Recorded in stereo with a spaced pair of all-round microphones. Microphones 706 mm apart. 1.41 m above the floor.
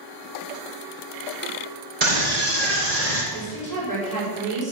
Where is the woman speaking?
55° right (ahead or behind), 6.5 m.